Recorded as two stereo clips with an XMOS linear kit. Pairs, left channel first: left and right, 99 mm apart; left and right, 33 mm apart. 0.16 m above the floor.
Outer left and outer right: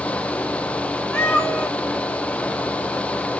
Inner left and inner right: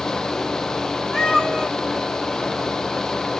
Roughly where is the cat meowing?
Centre.